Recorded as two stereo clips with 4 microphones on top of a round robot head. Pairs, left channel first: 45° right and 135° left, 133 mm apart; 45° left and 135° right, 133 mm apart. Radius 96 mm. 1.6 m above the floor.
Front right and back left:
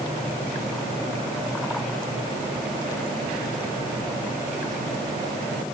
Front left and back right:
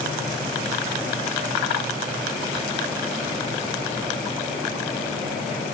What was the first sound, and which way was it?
Only background noise.